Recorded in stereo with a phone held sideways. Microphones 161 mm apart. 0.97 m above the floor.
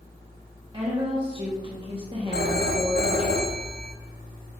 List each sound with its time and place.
0.7 s a woman speaking: 30° right (ahead or behind), 1.4 m
2.3 s a phone ringing: 80° right, 1.0 m